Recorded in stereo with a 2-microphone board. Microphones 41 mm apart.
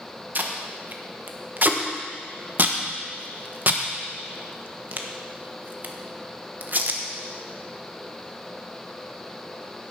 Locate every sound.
0.3 s tape being pulled: 45° right (ahead or behind), 1.1 m